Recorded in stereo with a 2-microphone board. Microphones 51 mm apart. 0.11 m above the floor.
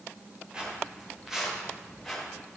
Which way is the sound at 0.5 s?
20° right (ahead or behind).